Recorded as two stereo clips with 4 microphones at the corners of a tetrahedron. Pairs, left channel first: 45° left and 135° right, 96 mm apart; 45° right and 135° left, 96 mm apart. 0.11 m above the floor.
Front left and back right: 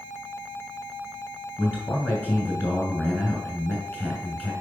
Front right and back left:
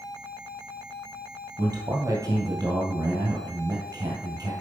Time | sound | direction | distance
1.6 | a man speaking | 115° left | 1.9 m